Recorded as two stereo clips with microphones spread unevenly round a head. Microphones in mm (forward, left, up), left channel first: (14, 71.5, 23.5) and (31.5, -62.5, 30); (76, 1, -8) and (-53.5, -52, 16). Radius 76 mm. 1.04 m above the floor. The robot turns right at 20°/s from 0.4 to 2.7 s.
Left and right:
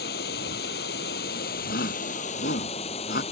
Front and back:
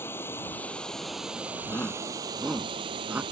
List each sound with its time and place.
0.0 s running water: 100° left; by 3.3 s 145° left
1.7 s a shout: 100° left; by 3.2 s 120° left